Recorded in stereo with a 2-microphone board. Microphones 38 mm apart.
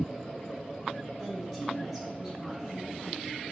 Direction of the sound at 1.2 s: Centre (ahead or behind).